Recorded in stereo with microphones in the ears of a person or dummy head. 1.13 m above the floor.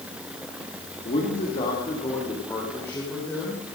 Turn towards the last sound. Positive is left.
turn(degrees=10)  # may be behind; listen again after turning